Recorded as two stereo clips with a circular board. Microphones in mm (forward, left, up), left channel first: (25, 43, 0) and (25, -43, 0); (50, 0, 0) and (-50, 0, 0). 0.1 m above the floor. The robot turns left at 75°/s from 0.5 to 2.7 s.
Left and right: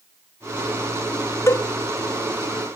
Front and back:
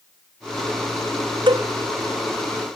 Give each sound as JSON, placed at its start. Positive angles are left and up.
{"t": 1.5, "sound": "a cowbell", "azimuth_deg": 145}